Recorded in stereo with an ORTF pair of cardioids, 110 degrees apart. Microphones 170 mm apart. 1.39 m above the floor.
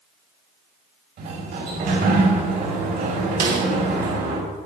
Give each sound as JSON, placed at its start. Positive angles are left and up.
{"t": 1.2, "sound": "a sliding door", "azimuth_deg": -70, "distance_m": 5.0}
{"t": 3.4, "sound": "a snare drum", "azimuth_deg": -65, "distance_m": 2.0}